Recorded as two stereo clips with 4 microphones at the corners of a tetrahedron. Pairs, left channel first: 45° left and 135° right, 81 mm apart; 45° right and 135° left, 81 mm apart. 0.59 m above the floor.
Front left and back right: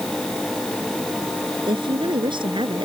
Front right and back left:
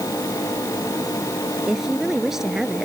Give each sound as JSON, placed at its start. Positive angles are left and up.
{"t": 1.7, "sound": "a woman speaking", "azimuth_deg": -140}